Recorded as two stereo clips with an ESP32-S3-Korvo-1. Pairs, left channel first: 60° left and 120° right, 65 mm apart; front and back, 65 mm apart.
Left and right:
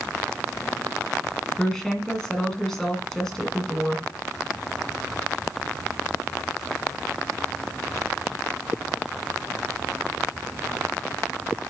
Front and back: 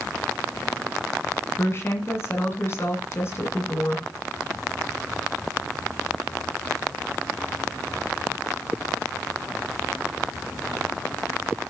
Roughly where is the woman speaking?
Ahead.